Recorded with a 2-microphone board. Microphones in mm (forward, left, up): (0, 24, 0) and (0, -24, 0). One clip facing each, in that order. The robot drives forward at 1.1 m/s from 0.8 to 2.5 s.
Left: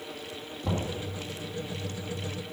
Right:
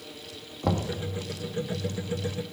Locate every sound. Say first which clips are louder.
0.6 s knocking: right 4 dB; 35° right (ahead or behind), 1.6 m; by 0.9 s 40° right (ahead or behind), 1.5 m